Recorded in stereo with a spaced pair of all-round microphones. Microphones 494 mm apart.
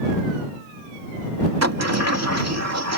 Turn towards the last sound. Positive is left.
turn(degrees=-30)  # may be behind; listen again after turning